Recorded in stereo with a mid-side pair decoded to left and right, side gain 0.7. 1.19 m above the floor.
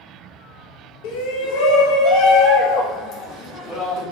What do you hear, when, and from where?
1.0 s a shout: 70° left, 1.2 m; by 4.0 s 45° left, 2.5 m